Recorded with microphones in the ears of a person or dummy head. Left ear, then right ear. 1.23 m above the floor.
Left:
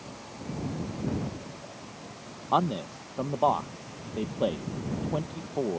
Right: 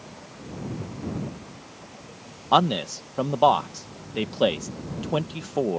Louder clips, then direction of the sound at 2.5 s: Right 6 dB; 65° right (ahead or behind).